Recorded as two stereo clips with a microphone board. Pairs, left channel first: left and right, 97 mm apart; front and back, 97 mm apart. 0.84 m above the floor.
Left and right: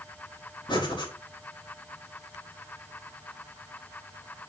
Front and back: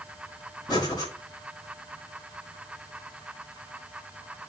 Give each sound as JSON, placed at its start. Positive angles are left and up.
{"t": 0.7, "sound": "breathing", "azimuth_deg": 50, "distance_m": 4.0}